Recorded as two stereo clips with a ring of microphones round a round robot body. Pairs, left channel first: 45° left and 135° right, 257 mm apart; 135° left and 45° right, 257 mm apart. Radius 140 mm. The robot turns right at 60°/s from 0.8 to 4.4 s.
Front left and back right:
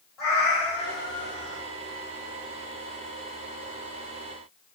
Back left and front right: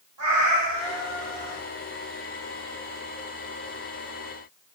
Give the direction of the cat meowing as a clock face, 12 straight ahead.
1 o'clock.